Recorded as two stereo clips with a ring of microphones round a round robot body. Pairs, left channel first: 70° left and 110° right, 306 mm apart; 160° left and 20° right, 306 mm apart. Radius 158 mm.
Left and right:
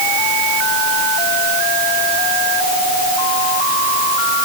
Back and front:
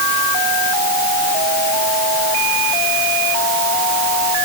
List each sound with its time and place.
Only background noise.